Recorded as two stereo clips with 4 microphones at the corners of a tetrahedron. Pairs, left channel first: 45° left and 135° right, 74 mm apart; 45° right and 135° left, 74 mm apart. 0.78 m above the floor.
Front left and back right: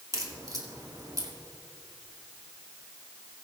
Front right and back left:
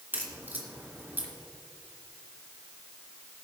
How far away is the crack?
About 2 m.